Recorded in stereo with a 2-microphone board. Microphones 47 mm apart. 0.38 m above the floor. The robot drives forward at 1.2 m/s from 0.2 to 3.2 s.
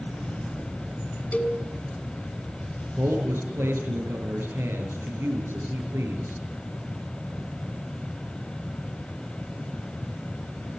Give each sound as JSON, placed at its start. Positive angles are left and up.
{"t": 1.3, "sound": "a cowbell", "side_deg": 30, "distance_m": 4.0}
{"t": 3.0, "sound": "a man speaking", "side_deg": -60, "distance_m": 7.5}